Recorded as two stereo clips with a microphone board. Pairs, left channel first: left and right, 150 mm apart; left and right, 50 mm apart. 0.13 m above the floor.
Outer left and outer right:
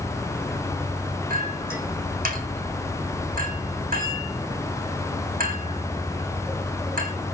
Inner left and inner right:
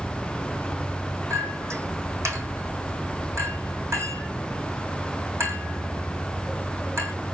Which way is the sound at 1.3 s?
70° right (ahead or behind).